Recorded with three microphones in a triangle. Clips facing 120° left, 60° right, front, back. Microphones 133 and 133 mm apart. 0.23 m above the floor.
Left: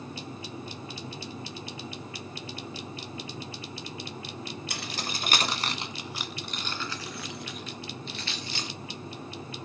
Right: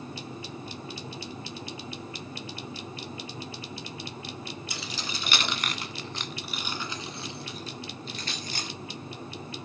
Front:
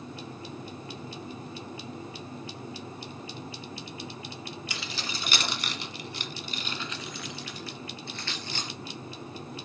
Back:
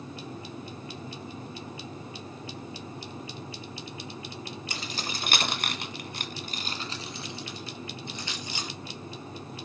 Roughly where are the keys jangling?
Behind left.